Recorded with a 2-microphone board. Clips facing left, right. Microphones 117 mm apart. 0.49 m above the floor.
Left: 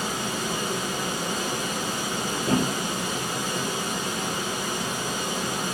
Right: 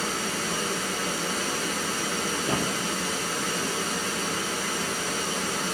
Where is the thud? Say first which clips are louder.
Left 6 dB; 40° left (ahead or behind), 1.0 m.